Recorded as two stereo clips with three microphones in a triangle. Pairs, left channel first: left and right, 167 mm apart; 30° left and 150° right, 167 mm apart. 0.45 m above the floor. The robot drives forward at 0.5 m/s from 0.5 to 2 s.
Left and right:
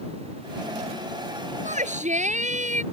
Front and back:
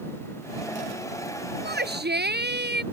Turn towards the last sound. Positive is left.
turn(degrees=-135)